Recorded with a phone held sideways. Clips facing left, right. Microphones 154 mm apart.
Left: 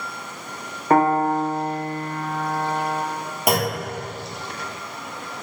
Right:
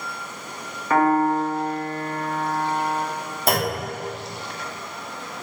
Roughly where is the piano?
Left.